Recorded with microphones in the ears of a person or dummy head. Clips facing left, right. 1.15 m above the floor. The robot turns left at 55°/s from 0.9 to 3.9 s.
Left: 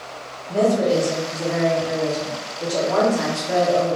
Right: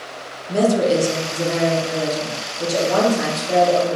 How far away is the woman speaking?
About 0.6 m.